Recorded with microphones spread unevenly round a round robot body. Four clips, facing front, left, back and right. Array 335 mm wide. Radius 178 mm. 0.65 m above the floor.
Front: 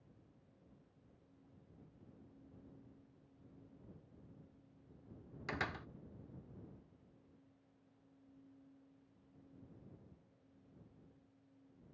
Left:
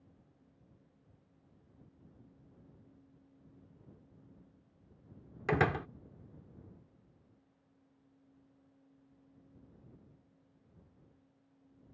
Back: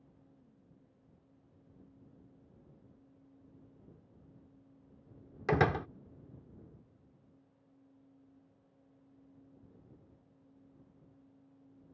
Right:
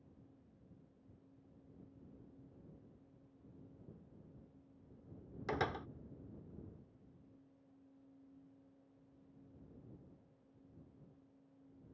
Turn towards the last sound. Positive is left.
turn(degrees=140)